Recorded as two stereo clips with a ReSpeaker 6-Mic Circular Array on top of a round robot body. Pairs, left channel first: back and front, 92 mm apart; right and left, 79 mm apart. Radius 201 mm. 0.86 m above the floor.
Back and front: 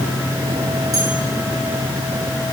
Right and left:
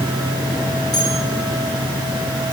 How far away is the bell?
About 7 m.